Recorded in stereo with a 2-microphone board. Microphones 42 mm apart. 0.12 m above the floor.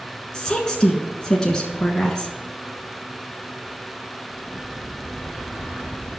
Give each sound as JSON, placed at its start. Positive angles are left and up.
{"t": 0.3, "sound": "a woman speaking", "side_deg": 20, "distance_m": 1.1}